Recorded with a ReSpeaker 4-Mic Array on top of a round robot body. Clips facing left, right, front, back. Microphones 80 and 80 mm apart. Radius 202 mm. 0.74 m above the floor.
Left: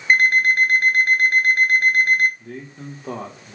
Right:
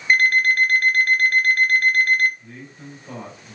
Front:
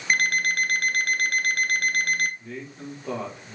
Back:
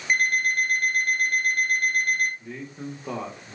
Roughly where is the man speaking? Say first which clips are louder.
Left 5 dB, back 1 dB; left.